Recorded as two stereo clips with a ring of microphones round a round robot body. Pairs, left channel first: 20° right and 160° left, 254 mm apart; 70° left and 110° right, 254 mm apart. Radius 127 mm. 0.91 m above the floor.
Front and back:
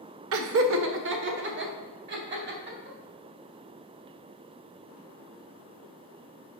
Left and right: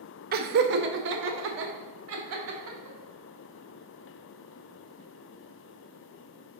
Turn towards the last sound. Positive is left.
turn(degrees=-150)